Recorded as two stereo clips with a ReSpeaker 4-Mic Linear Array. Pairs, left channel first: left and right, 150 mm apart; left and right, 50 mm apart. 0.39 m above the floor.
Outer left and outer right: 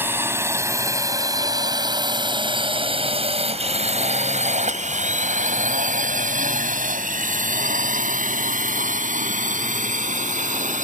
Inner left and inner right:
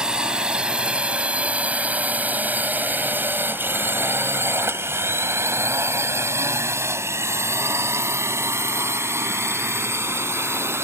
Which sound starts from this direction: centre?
A drone, at 0.0 s.